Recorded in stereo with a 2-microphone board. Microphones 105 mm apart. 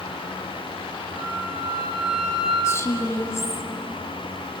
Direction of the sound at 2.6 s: 30° left (ahead or behind).